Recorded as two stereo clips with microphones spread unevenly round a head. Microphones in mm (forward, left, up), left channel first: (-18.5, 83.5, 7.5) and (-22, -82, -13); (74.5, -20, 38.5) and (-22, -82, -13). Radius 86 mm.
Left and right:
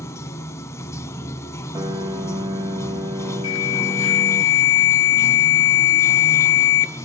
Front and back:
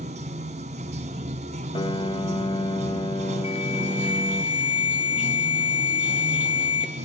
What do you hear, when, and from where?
0.0 s running water: 150° left, 1.7 m
1.8 s a piano: 20° right, 2 m
3.4 s an alarm: 95° left, 2.5 m